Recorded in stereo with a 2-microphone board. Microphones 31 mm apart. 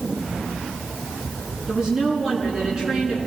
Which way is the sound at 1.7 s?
20° right (ahead or behind).